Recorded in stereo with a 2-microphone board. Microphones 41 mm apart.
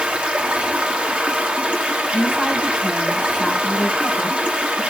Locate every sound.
0.0 s running water: 30° right (ahead or behind), 2 m
2.1 s a woman speaking: 10° right (ahead or behind), 7.5 m